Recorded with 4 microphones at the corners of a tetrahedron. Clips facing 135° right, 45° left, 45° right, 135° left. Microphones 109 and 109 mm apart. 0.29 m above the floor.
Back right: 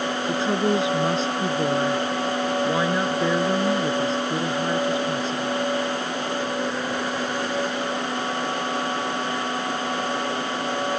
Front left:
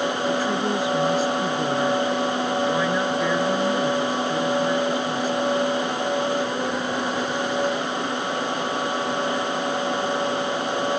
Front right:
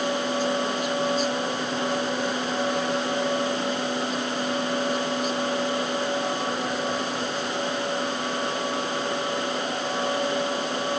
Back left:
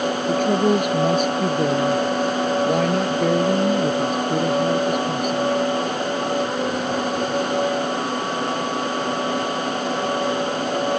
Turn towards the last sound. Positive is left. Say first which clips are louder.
# back right 1 dB, back left 7 dB
turn(degrees=155)